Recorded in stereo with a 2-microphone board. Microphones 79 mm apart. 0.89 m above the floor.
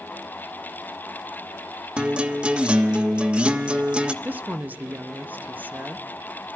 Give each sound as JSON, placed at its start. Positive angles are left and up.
{"t": 2.0, "sound": "a guitar", "side_deg": -10, "distance_m": 0.5}
{"t": 4.2, "sound": "a woman speaking", "side_deg": -20, "distance_m": 0.6}